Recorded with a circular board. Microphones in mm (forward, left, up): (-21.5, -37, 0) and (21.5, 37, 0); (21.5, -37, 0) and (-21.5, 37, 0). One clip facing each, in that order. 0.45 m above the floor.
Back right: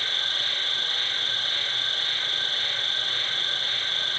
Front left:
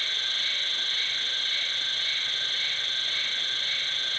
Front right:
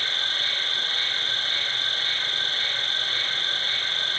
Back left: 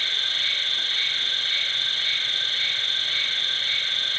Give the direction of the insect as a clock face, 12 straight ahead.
3 o'clock.